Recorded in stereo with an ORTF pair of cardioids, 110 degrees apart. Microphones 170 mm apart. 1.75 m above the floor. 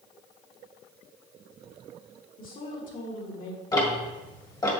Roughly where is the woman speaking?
Ahead left.